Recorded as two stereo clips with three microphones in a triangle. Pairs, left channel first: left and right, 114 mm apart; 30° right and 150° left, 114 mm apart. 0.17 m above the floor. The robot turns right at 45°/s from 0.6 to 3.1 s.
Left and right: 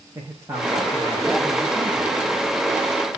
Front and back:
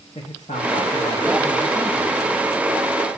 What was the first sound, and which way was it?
A man speaking, 25° right.